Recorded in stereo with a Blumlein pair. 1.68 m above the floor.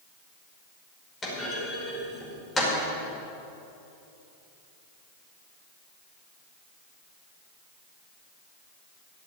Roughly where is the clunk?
Ahead.